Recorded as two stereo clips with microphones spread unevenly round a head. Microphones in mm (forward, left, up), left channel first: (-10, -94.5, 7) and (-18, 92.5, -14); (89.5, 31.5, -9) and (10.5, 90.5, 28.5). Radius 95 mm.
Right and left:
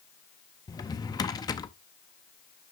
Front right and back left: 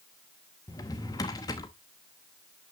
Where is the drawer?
105° right, 0.7 m.